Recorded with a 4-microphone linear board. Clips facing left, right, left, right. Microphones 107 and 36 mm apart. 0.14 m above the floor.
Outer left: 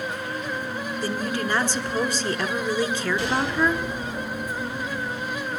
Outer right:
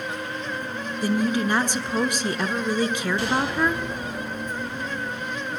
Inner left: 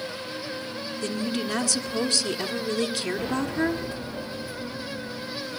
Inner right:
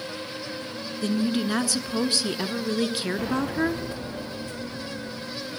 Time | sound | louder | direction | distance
1.0 | a woman speaking | outer right 6 dB, inner right 4 dB | 15° right (ahead or behind) | 1.4 m